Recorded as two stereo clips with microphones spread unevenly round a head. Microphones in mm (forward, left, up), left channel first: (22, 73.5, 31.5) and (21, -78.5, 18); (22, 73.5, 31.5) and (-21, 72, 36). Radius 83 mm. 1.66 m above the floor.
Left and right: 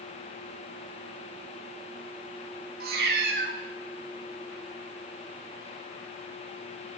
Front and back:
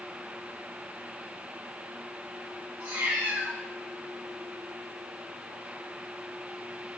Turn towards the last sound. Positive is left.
turn(degrees=-115)